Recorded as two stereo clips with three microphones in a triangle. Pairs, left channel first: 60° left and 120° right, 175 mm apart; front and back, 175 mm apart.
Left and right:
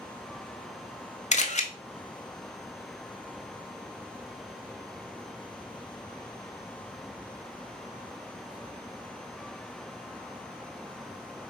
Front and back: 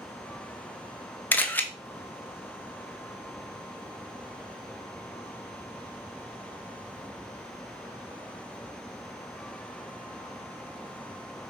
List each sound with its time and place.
1.3 s a camera shutter: 75° left, 0.6 m